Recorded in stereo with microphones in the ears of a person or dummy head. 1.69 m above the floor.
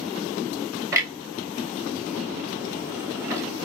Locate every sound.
0.9 s a clunk: 20° right (ahead or behind), 2.5 m